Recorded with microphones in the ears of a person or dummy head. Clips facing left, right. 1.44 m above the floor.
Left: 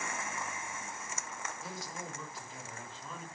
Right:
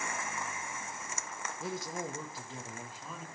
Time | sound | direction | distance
1.6 | a man speaking | 55° right (ahead or behind) | 2 m